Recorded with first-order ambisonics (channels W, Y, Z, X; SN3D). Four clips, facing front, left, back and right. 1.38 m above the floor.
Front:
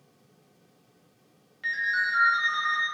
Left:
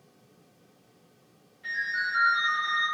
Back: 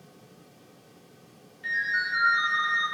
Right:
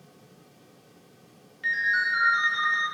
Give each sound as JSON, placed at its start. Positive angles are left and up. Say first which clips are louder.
{"t": 1.6, "sound": "a ringtone", "louder": "right 5 dB, front 1 dB", "azimuth_deg": -55, "distance_m": 0.8}